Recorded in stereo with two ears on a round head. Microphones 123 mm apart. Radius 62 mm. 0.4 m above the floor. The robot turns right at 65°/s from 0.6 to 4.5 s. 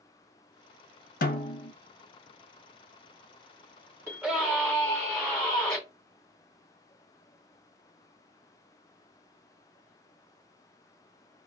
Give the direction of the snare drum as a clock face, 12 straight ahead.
8 o'clock.